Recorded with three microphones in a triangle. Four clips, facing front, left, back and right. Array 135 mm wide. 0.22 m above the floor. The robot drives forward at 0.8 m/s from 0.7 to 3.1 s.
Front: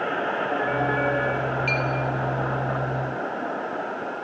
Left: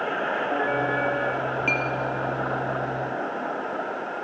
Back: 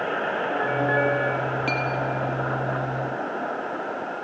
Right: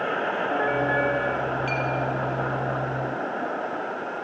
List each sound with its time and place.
1.7 s a clink: 140° left, 3 m